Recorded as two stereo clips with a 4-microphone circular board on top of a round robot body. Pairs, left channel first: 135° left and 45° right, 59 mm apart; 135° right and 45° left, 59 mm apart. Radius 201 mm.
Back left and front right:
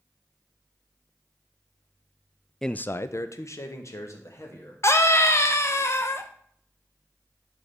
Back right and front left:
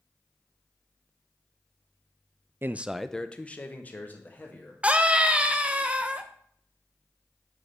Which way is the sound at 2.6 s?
55° left.